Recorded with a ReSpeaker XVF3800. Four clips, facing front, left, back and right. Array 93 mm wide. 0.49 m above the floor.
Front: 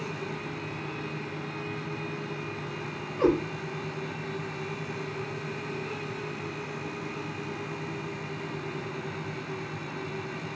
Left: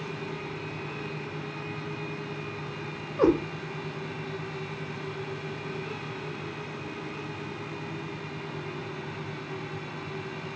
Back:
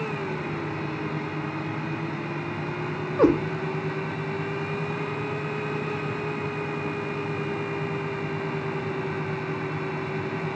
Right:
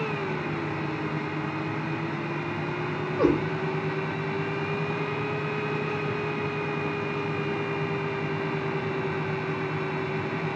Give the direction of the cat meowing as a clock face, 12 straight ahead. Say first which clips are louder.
Left 1 dB, back 4 dB; 6 o'clock.